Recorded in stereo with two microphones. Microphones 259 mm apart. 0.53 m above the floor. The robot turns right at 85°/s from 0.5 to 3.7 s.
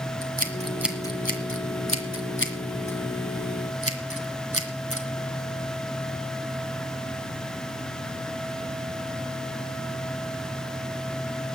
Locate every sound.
0.2 s scissors: 35° right (ahead or behind), 1.8 m; by 5.1 s 60° right (ahead or behind), 1.8 m